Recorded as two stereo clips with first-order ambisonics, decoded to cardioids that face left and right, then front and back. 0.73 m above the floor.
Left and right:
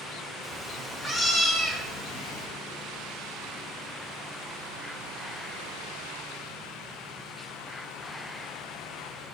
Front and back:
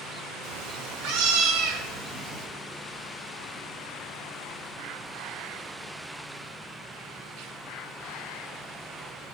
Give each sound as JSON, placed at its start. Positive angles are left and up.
{"t": 0.4, "sound": "a cat meowing", "azimuth_deg": 180, "distance_m": 1.6}